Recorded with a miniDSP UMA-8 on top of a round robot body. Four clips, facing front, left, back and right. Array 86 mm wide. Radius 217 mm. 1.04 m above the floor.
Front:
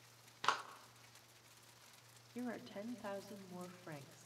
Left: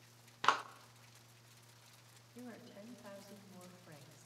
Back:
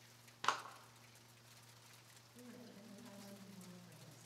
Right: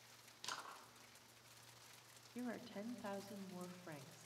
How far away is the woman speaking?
About 2.5 m.